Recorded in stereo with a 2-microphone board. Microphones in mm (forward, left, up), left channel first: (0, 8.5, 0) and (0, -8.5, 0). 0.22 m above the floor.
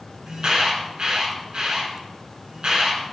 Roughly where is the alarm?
Right.